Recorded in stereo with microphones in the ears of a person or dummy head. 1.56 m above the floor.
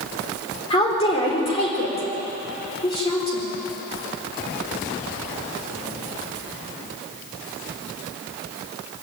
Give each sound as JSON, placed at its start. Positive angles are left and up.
{"t": 0.7, "sound": "a woman speaking", "side_deg": 25, "distance_m": 4.5}